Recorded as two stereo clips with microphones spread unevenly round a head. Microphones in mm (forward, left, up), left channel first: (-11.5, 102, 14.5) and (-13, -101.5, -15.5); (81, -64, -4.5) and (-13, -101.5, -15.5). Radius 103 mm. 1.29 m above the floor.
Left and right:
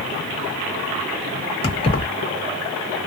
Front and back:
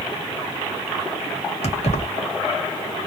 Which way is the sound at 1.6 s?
25° left.